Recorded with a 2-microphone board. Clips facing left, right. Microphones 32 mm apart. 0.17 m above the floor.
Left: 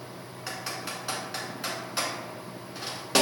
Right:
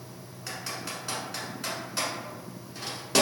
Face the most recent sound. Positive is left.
turn(degrees=15)  # may be behind; listen again after turning